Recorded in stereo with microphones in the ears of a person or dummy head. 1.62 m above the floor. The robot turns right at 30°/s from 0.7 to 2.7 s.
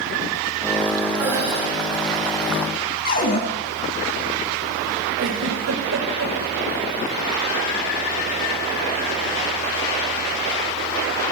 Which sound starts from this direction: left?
A cupboard door, at 3.0 s.